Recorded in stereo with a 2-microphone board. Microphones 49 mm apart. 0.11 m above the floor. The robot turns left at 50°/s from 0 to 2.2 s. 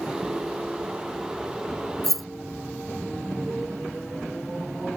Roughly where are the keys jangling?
Centre.